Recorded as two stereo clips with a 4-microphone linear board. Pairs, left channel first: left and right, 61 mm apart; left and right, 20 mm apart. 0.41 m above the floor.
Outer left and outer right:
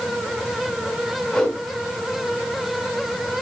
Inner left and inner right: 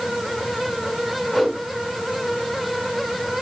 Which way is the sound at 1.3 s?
15° left (ahead or behind).